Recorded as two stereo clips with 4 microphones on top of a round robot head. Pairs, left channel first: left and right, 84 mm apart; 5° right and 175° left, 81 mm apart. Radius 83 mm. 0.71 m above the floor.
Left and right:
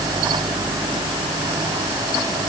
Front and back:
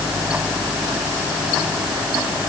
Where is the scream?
I don't hear a scream.